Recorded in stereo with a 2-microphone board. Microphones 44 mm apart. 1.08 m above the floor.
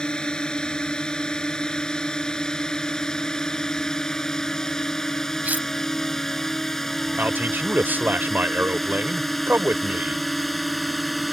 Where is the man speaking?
45° right (ahead or behind).